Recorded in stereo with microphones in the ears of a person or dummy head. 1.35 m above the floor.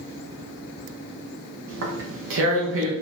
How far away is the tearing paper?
About 1.7 m.